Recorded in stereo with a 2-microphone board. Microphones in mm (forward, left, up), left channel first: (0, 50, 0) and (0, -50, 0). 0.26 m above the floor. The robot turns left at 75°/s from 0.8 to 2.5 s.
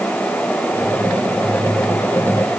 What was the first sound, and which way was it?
Only background noise.